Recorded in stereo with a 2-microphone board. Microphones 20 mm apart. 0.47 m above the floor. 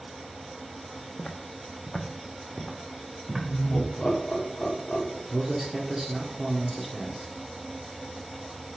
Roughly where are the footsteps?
Left.